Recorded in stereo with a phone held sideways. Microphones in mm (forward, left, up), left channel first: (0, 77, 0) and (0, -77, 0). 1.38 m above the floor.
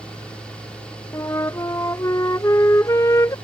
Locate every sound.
0.0 s a fan: 5° left (ahead or behind)
1.1 s a flute: 20° left (ahead or behind)